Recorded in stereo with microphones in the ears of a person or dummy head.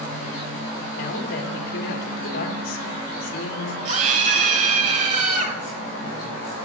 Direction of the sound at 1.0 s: 45° left (ahead or behind).